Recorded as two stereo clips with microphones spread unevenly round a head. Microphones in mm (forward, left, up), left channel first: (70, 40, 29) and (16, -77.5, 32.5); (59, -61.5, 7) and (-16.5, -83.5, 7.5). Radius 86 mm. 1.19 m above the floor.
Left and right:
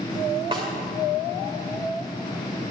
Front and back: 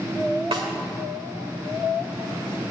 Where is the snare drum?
Straight behind, 2.0 m.